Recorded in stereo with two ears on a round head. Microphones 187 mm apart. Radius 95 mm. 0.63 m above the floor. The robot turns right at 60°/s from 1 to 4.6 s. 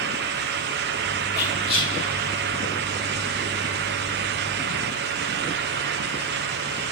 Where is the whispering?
45° left (ahead or behind), 1.8 m; by 1.9 s 15° left (ahead or behind), 1.8 m.